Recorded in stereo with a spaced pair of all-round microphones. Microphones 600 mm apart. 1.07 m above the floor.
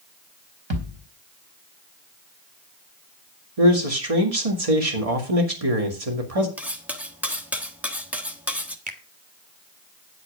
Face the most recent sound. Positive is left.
turn(degrees=-15)  # may be behind; listen again after turning